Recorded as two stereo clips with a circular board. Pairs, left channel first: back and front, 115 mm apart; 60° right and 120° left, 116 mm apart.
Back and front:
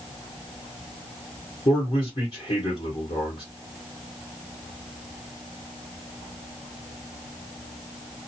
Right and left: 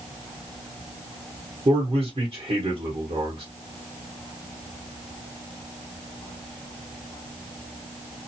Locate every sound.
1.6 s a man speaking: 145° left, 1.4 m